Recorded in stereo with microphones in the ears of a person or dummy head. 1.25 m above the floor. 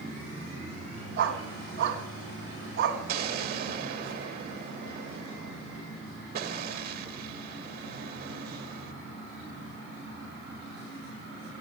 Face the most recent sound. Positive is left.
turn(degrees=-55)  # may be behind; listen again after turning